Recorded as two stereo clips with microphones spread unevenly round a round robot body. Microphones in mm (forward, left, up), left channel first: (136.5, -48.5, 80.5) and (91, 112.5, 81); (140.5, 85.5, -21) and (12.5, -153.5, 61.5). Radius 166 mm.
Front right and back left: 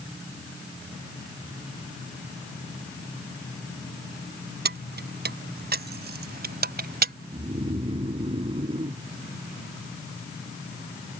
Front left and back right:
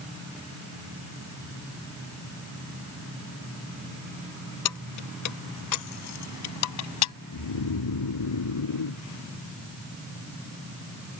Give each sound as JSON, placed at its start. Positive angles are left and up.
{"t": 4.7, "sound": "keys jangling", "azimuth_deg": 90}
{"t": 7.3, "sound": "snoring", "azimuth_deg": 50}